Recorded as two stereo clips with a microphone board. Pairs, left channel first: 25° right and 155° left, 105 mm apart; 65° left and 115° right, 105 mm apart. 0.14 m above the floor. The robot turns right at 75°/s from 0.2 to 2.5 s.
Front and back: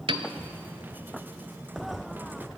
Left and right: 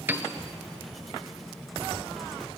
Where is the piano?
Straight behind, 0.5 m; by 0.3 s 170° right, 0.5 m.